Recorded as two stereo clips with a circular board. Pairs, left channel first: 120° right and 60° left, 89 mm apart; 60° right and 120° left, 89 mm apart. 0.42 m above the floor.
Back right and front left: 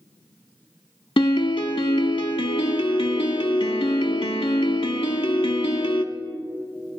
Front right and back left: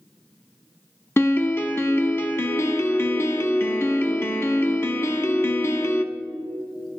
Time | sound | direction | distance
1.2 | a piano | 120° right | 0.6 m